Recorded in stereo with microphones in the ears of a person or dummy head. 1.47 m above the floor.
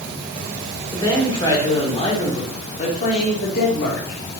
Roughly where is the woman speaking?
Left.